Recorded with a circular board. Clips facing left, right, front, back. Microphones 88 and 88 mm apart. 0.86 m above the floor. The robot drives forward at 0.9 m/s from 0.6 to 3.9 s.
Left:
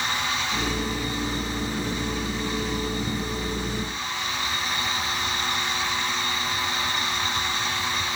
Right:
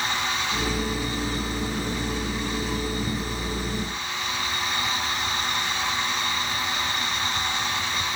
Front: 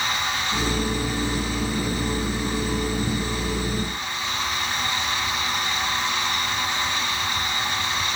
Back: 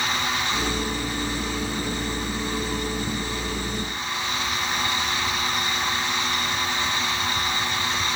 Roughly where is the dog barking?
I don't hear a dog barking.